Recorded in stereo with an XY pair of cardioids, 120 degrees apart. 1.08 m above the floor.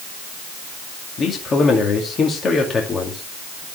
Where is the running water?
No running water in this recording.